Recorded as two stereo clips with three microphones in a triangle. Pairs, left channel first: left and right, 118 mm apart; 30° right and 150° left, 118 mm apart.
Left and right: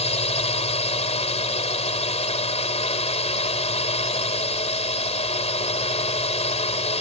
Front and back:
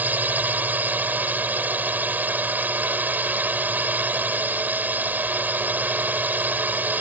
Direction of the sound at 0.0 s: 75° left.